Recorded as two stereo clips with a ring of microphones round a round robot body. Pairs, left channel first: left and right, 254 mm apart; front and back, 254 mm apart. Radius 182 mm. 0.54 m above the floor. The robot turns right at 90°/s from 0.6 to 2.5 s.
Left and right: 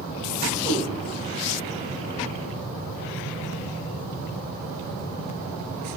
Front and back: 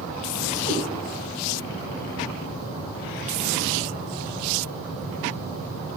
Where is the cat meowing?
20° right, 1.6 m; by 0.8 s 5° right, 1.6 m.